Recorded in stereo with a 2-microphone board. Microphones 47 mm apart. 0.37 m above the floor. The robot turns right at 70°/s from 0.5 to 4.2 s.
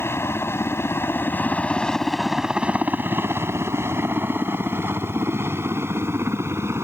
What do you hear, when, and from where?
0.0 s a helicopter: 60° left (ahead or behind); by 6.8 s 65° right (ahead or behind)